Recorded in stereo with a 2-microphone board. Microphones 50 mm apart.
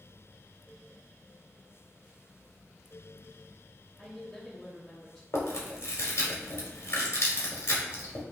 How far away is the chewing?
About 1.2 m.